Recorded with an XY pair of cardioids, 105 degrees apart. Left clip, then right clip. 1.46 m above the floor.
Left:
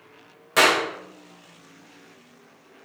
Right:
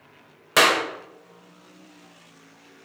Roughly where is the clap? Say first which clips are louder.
Even; ahead right.